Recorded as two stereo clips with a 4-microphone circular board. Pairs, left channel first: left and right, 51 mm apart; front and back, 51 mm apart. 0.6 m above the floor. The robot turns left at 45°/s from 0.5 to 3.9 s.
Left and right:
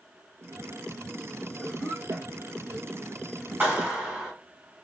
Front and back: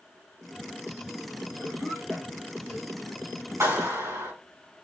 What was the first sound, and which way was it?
A cough, 80° right.